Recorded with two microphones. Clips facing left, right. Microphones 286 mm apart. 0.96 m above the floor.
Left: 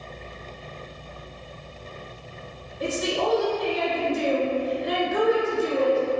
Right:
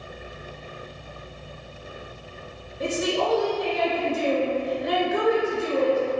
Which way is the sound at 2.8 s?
55° right (ahead or behind).